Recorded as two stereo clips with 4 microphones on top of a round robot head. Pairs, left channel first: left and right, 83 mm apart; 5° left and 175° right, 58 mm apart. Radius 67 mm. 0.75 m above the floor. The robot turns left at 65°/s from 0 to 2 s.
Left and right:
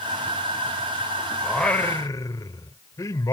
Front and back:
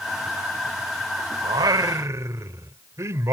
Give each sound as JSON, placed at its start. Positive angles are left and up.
{"t": 1.4, "sound": "singing", "azimuth_deg": -175}